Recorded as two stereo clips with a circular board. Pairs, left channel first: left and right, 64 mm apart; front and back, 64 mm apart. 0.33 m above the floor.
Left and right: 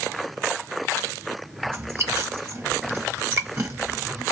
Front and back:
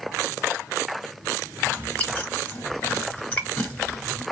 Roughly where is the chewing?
Ahead right.